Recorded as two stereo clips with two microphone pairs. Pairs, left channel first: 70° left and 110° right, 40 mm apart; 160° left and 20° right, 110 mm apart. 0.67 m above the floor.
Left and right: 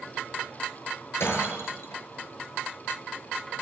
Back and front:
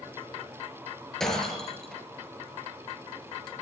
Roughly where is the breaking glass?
Left.